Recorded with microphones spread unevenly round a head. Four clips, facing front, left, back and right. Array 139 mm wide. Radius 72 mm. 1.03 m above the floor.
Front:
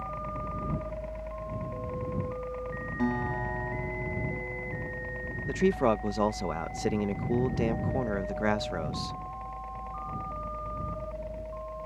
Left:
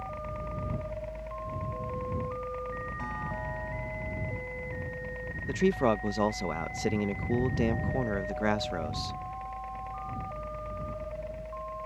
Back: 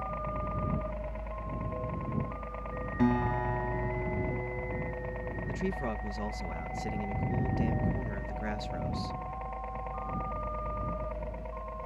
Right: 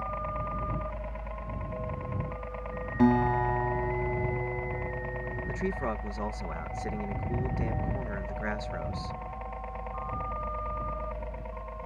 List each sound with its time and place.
0.0 s a helicopter: 115° right; by 11.9 s 130° right
3.0 s a guitar: 85° right
5.5 s a man speaking: 25° left